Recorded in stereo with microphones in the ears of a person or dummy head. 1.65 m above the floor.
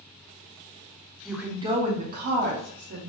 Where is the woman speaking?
5° left (ahead or behind), 0.5 m; by 3.1 s 65° right (ahead or behind), 1.3 m.